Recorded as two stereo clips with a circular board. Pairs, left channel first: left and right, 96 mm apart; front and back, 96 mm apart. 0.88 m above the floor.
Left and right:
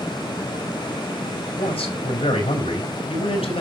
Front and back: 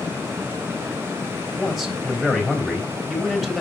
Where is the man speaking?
85° left, 3.5 m.